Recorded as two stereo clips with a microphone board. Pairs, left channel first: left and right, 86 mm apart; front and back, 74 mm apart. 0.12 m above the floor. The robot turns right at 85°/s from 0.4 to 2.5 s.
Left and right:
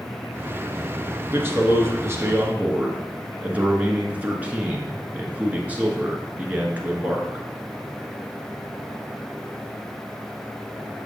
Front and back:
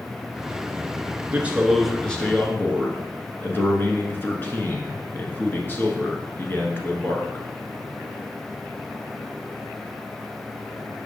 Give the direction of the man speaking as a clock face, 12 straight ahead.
5 o'clock.